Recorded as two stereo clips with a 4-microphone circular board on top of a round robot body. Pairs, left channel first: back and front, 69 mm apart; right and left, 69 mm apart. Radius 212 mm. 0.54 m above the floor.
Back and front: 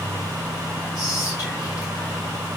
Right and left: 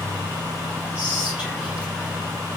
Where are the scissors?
No scissors in this recording.